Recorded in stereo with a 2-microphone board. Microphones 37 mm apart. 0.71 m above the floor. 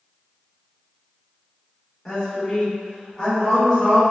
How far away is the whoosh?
I don't hear a whoosh.